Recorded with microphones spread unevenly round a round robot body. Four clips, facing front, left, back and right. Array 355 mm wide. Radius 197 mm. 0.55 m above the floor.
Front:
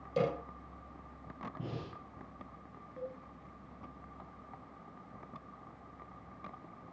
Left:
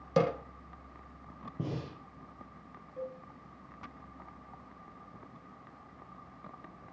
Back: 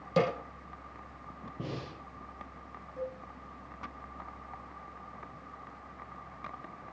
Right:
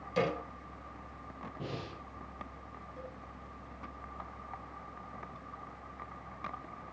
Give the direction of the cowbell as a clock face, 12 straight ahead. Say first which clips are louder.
Left 8 dB, back 5 dB; 7 o'clock.